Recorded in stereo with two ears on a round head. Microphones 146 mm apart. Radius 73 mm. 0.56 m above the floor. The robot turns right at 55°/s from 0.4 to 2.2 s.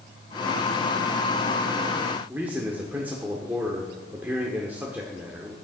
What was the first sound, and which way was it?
A man speaking, 10° right (ahead or behind).